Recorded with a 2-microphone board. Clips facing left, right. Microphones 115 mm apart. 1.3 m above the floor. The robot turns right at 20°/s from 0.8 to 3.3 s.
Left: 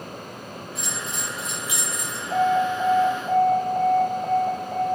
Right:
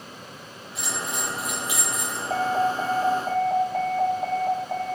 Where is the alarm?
40° right (ahead or behind), 1.8 m; by 5.0 s 60° right (ahead or behind), 1.8 m.